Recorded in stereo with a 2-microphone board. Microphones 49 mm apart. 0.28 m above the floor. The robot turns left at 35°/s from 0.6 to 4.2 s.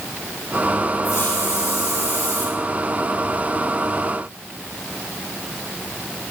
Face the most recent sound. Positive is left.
turn(degrees=-20)